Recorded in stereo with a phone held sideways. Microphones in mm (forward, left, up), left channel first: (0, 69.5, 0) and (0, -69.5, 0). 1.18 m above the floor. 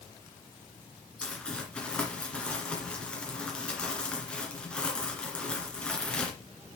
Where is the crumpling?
5° left (ahead or behind), 2 m.